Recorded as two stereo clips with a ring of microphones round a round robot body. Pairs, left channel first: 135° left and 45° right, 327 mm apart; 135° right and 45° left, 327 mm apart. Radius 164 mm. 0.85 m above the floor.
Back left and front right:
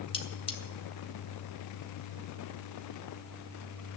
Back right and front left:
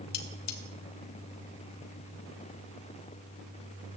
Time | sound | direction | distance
0.1 | cutlery clinking | 150° right | 1.8 m